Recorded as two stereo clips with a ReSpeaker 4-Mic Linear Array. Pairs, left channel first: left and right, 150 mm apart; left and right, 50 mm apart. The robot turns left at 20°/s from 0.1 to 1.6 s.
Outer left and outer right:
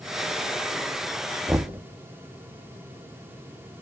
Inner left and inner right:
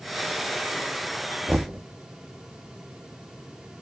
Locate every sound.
1.5 s knocking: 15° right (ahead or behind), 0.8 m; by 1.8 s 10° right (ahead or behind), 0.8 m